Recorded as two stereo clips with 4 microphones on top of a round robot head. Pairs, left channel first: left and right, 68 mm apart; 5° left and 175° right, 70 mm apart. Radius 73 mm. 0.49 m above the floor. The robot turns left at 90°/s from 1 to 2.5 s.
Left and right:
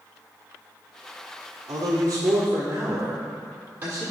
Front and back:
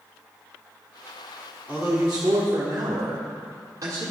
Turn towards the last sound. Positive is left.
turn(degrees=-150)